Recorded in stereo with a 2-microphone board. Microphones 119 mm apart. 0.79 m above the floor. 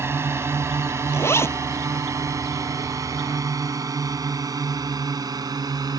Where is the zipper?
20° left (ahead or behind).